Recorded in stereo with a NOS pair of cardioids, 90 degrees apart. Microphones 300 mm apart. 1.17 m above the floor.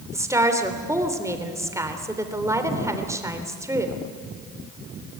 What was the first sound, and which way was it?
A woman speaking, 10° right.